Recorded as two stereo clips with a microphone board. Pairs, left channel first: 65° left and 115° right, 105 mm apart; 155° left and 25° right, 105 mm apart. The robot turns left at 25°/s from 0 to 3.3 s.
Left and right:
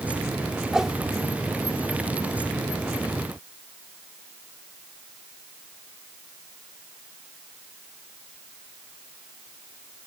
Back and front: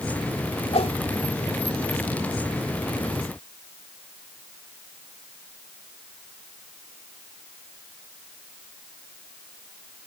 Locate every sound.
0.7 s a whoosh: 165° left; by 0.9 s 160° left